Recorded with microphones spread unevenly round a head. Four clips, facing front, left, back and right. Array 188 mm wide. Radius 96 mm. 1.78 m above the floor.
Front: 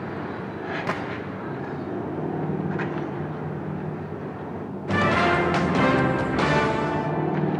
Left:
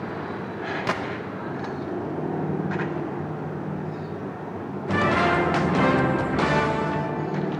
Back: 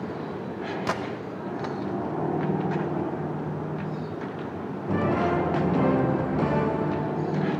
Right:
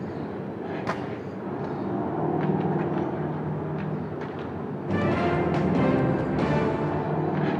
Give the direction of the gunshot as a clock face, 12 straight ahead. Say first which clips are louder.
Left 4 dB, back 1 dB; 7 o'clock.